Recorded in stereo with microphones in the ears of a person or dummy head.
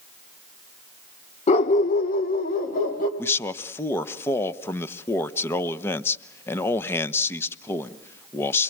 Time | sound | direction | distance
1.5 | a dog barking | 35° left (ahead or behind) | 1.2 m
3.2 | a man speaking | 10° left (ahead or behind) | 1.0 m